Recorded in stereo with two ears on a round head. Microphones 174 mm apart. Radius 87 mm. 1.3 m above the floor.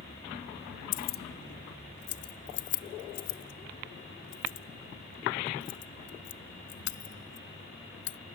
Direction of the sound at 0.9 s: 40° left (ahead or behind).